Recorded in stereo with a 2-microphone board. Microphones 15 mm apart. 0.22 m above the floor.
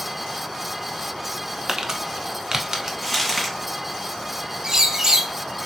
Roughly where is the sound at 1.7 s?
Right.